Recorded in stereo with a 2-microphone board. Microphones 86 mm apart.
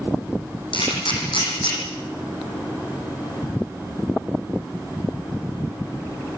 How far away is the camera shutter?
About 7 m.